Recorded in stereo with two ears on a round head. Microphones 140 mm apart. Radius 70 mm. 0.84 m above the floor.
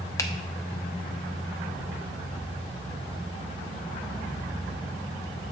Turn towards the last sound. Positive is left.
turn(degrees=20)  # may be behind; listen again after turning